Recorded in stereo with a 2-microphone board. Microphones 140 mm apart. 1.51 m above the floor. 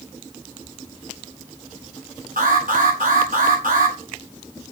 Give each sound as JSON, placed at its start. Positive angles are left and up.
{"t": 2.4, "sound": "an alarm", "side_deg": -80, "distance_m": 5.0}